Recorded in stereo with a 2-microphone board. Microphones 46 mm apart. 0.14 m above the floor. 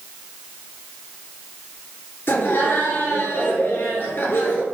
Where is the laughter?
55° left (ahead or behind), 2.5 m.